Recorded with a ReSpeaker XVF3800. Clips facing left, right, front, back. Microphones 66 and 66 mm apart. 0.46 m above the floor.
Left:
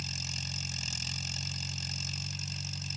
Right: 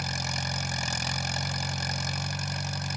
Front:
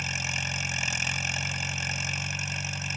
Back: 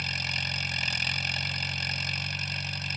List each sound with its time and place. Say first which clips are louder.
0.0 s an engine running: right 10 dB, front 1 dB; 80° right